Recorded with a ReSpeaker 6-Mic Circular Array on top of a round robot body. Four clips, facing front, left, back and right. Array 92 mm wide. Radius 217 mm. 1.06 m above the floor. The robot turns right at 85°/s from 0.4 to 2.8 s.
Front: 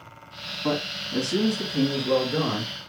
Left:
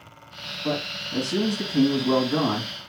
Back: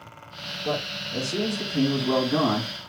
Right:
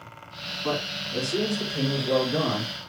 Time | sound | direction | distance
0.6 | a man speaking | 10° right | 2.5 m